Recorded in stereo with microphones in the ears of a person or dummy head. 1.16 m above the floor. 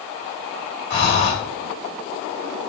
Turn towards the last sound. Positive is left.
turn(degrees=90)